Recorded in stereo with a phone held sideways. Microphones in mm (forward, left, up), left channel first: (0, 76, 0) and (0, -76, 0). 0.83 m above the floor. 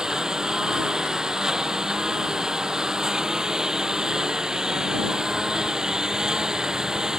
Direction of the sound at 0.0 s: 5° right (ahead or behind).